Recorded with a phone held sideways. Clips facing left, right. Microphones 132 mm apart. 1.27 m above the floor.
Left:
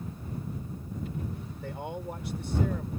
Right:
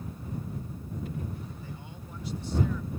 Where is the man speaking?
75° left (ahead or behind); by 2.9 s 55° left (ahead or behind).